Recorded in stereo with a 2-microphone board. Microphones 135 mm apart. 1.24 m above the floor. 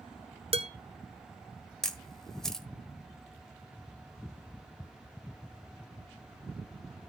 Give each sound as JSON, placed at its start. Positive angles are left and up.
{"t": 0.5, "sound": "dishes clattering", "side_deg": -45, "distance_m": 0.8}
{"t": 1.8, "sound": "a camera shutter", "side_deg": 5, "distance_m": 1.2}